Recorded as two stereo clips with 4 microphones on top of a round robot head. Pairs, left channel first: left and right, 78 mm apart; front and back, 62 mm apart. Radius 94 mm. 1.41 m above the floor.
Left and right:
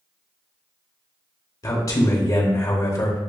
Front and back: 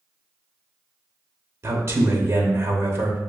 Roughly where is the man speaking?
Behind left.